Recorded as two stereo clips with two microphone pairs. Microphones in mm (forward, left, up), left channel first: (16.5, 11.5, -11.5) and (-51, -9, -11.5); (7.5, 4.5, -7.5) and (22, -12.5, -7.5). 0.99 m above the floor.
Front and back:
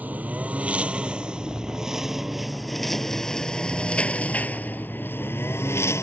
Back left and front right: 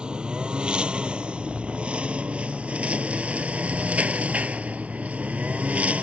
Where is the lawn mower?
95° right; by 6.0 s 35° right.